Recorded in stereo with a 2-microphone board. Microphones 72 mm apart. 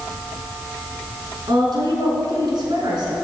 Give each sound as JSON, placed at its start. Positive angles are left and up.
{"t": 1.5, "sound": "a woman speaking", "side_deg": -75, "distance_m": 4.0}